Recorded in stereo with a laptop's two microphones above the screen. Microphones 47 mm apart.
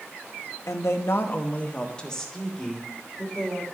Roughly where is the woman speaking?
Left.